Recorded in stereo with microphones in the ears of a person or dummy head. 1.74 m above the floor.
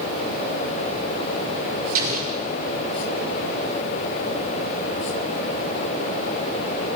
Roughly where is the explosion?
Right.